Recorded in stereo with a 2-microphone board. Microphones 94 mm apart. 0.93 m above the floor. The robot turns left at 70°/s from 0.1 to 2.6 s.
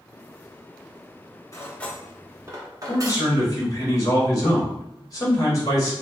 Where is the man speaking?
40° left (ahead or behind), 1.4 m.